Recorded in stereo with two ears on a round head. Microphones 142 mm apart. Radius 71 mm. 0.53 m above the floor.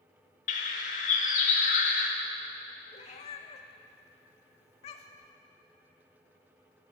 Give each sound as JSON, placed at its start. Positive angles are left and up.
{"t": 0.5, "sound": "a bird", "side_deg": 55, "distance_m": 1.0}
{"t": 2.9, "sound": "a cat meowing", "side_deg": 45, "distance_m": 0.8}